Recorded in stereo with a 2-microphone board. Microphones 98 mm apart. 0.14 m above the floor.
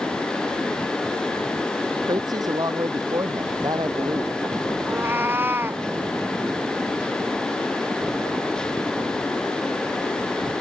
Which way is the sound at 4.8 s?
20° right (ahead or behind).